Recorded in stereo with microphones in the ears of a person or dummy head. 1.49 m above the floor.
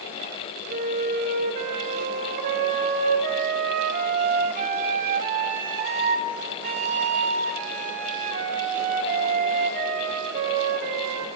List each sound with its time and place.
0.7 s a flute: 35° right (ahead or behind), 0.9 m